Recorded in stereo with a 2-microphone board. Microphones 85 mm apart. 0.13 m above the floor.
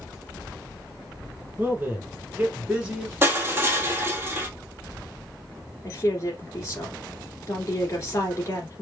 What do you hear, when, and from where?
1.6 s a man speaking: 25° right (ahead or behind), 1.3 m; by 3.1 s 10° right (ahead or behind), 1.2 m
3.2 s crushing: 30° right (ahead or behind), 1.1 m
5.8 s a woman speaking: 35° left (ahead or behind), 1.8 m